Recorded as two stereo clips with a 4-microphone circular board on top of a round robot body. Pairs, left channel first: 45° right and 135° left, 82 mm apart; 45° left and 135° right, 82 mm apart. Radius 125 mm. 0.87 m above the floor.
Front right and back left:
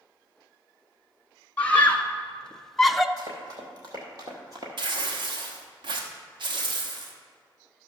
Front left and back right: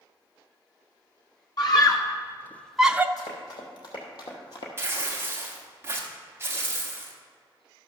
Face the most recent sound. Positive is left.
turn(degrees=165)